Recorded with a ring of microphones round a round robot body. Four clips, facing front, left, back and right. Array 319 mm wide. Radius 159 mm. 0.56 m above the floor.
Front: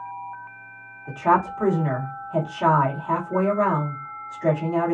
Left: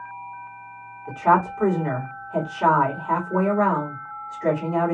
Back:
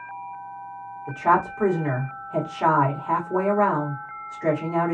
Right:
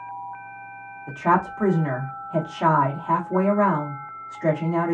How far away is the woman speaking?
About 1.2 m.